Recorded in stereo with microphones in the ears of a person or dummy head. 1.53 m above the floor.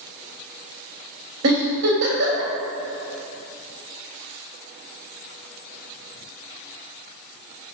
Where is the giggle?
60° right (ahead or behind), 3 m.